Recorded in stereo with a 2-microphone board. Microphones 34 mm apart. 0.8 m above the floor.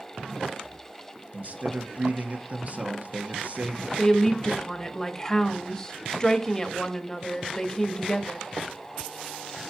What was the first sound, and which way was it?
A man speaking, 45° right (ahead or behind).